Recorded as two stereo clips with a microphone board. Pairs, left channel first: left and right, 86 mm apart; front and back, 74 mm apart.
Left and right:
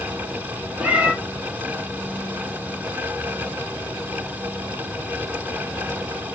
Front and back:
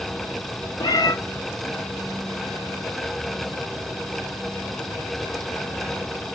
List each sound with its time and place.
0.8 s a cat meowing: 10° right, 0.9 m